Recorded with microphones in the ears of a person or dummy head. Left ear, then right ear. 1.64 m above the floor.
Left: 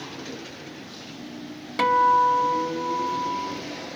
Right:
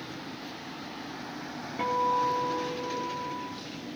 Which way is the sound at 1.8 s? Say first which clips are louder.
Left 9 dB; 60° left (ahead or behind).